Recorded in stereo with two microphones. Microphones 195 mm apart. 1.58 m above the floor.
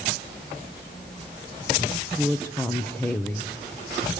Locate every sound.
1.8 s a woman speaking: 10° left (ahead or behind), 0.9 m